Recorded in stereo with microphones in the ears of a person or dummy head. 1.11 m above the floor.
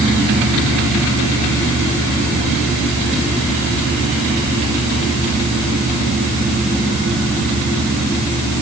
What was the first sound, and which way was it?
Only background noise.